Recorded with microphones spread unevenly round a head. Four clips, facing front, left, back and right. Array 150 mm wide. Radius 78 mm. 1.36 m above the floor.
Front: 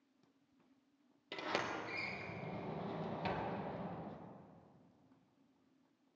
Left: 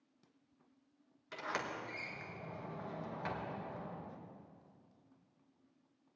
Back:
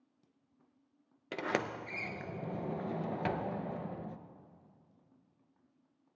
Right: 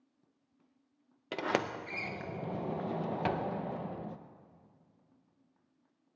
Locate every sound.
1.3 s a sliding door: 105° right, 0.7 m